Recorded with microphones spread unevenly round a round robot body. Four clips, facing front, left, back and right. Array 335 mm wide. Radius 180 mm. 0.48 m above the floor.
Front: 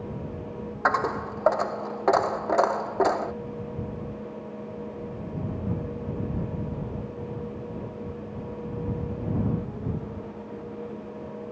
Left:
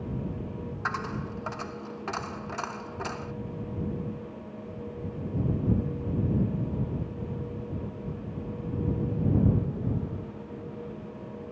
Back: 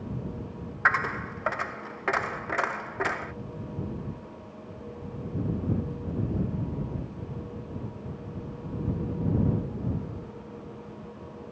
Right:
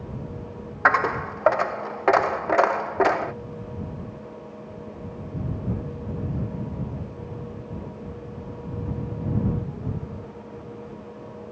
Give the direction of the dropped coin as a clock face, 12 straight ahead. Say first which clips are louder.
Right 13 dB, front 2 dB; 2 o'clock.